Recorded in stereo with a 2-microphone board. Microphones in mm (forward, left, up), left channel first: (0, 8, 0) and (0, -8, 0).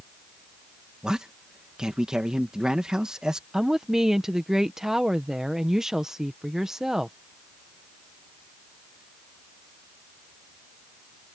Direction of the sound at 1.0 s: 50° right (ahead or behind).